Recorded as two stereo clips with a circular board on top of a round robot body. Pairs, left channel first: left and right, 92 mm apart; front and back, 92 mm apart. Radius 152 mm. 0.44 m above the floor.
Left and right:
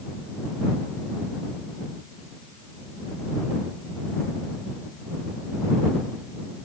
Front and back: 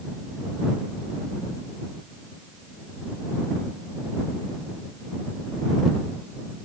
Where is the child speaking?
No child speaking in this recording.